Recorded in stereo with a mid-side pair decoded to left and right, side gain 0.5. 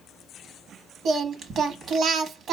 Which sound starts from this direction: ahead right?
Singing, at 1.1 s.